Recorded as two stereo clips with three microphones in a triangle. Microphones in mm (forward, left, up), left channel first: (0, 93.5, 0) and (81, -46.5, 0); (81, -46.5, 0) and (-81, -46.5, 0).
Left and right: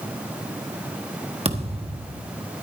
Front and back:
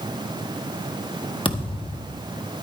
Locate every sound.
1.4 s a thud: 40° right, 1.3 m